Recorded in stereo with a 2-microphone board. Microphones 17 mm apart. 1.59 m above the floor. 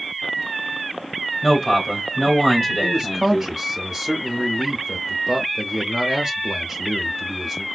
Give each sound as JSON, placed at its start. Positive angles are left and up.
{"t": 1.4, "sound": "a man speaking", "side_deg": 10, "distance_m": 2.5}
{"t": 2.8, "sound": "a man speaking", "side_deg": 0, "distance_m": 0.6}